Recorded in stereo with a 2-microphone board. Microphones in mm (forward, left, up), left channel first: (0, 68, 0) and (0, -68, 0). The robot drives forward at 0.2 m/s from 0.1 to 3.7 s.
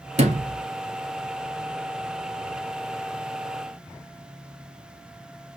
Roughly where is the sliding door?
Right.